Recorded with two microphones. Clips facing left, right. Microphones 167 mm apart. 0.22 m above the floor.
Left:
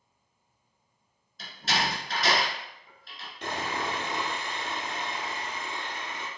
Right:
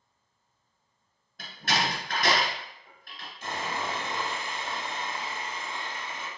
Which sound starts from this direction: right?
A door slam, at 1.4 s.